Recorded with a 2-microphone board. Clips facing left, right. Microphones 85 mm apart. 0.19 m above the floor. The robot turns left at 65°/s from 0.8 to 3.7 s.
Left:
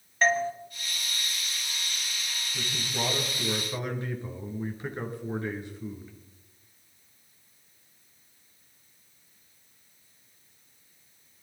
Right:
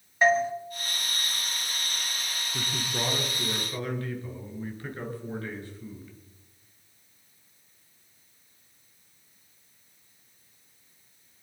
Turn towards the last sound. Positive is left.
turn(degrees=160)